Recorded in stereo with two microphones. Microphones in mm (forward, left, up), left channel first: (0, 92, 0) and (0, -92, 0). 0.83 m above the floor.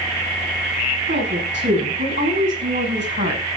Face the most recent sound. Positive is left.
turn(degrees=-80)